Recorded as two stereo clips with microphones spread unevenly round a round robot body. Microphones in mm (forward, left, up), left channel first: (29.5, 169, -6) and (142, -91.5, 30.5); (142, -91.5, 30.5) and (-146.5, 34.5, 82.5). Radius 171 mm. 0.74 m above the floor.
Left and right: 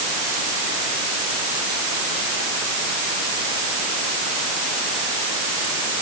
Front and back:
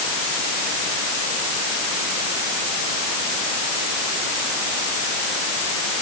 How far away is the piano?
I don't hear a piano.